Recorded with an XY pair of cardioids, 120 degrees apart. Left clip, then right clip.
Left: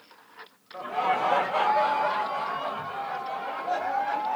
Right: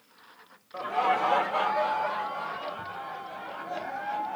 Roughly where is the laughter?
Ahead right.